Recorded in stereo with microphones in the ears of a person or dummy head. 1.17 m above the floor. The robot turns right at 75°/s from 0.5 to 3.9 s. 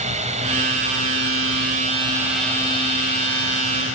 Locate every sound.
0.0 s a drone: 140° right; by 4.0 s 115° left